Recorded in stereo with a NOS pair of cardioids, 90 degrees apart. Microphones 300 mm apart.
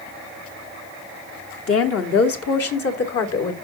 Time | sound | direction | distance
1.7 | a woman speaking | 50° left | 2 m